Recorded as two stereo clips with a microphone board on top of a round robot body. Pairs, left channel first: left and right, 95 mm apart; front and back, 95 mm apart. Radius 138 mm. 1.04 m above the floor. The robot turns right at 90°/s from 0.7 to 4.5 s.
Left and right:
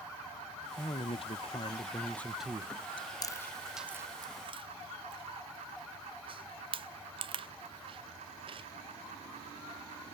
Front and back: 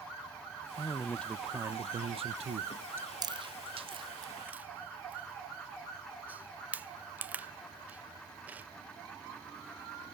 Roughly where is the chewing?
Behind left.